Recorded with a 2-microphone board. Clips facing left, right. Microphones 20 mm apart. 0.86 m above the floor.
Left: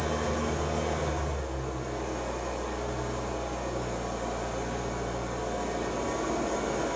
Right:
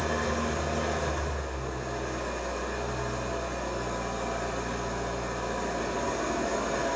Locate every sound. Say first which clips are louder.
0.0 s an engine running: right 1 dB; 55° right (ahead or behind), 1.2 m